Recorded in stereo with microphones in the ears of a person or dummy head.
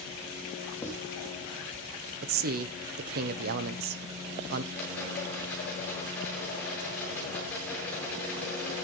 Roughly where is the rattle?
Centre.